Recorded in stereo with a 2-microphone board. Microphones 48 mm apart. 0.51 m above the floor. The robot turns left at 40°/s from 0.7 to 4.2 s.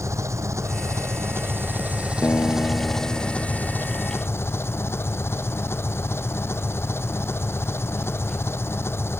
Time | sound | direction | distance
0.0 | an engine running | 95° right | ?
2.2 | a guitar | 115° left | ?